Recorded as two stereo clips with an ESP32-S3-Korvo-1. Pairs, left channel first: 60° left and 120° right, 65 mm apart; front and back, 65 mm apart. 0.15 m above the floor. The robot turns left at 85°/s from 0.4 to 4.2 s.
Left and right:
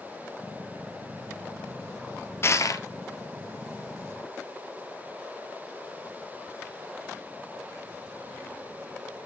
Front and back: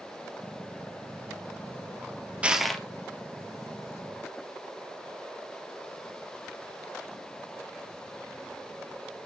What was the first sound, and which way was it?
Crushing, 110° left.